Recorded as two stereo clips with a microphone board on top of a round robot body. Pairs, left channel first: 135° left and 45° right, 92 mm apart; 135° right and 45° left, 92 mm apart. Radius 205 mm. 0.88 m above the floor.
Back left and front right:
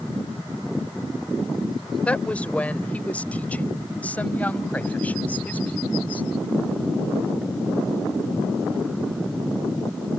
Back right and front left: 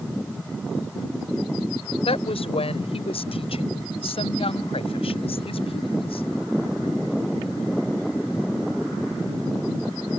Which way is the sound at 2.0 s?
145° right.